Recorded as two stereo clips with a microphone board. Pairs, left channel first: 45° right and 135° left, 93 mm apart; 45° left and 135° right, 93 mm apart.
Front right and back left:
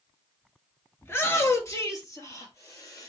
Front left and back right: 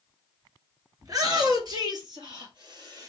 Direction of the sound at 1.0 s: 100° right.